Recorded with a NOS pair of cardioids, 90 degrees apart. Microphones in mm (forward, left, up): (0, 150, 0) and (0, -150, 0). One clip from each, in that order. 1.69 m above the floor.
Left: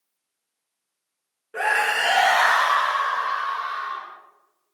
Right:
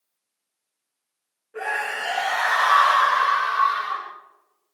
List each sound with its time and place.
1.5 s a scream: 70° left, 1.5 m; by 4.1 s 75° right, 2.0 m